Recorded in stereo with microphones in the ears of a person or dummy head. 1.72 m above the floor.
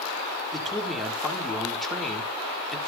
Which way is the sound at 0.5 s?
5° left (ahead or behind).